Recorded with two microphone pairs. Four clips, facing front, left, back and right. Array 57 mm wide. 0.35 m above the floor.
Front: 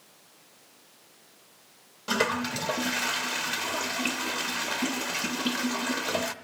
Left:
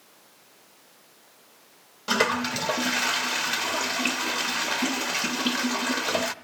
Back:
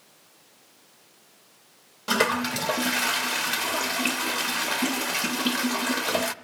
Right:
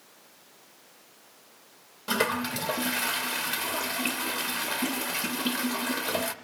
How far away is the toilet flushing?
About 0.5 m.